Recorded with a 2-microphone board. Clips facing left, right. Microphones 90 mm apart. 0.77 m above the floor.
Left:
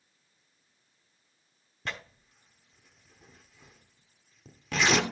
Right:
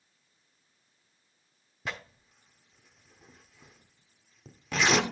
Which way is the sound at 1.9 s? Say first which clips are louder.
Even; 10° right (ahead or behind).